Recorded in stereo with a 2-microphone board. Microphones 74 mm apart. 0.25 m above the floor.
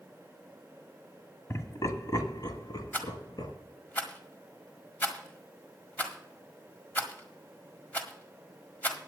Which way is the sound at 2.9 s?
25° left (ahead or behind).